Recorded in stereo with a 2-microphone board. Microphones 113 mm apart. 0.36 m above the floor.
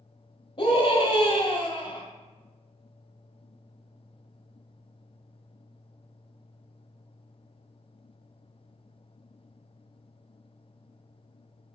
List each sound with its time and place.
0.6 s a scream: 50° left (ahead or behind), 1.6 m